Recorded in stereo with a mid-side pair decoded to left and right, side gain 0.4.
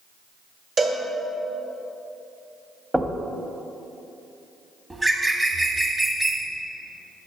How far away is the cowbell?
About 2 m.